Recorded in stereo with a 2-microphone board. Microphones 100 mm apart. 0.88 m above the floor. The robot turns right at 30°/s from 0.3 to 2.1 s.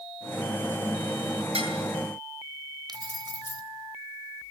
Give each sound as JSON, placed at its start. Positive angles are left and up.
{"t": 1.5, "sound": "dishes clattering", "side_deg": -65, "distance_m": 8.5}
{"t": 2.9, "sound": "keys jangling", "side_deg": -45, "distance_m": 3.0}